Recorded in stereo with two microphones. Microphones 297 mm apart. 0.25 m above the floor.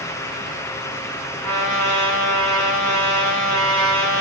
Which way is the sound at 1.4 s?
70° right (ahead or behind).